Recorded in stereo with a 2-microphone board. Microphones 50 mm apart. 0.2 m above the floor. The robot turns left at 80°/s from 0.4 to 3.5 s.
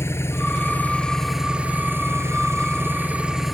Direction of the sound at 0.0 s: 70° left.